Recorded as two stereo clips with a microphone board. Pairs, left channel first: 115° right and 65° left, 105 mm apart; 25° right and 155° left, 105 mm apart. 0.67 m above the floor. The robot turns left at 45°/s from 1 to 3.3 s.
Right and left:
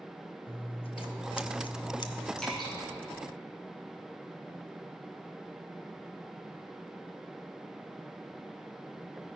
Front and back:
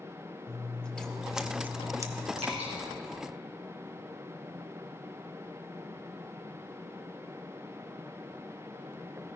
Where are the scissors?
100° right, 0.8 m; by 2.3 s 160° right, 0.8 m.